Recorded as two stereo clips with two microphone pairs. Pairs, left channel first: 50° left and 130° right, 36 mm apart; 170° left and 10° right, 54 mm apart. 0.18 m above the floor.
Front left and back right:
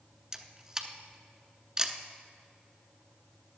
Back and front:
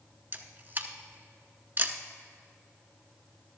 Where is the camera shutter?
60° right, 0.7 m.